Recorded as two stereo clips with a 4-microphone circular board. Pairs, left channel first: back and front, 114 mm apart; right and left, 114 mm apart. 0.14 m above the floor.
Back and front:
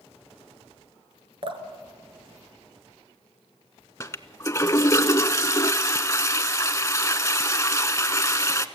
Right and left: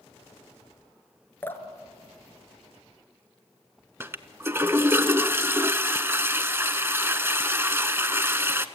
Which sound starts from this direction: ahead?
Dripping, at 1.4 s.